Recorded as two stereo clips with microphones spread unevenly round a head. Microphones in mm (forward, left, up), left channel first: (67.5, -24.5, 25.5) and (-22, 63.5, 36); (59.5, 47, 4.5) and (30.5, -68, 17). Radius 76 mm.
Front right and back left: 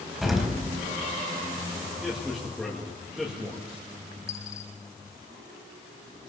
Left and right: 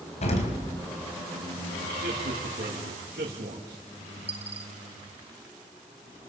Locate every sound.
0.2 s an explosion: 50° left, 3.5 m
2.0 s a man speaking: 135° right, 2.5 m
4.3 s a dropped coin: 90° right, 0.9 m